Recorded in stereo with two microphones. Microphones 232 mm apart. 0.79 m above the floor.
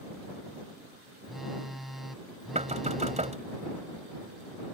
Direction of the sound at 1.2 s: Centre (ahead or behind).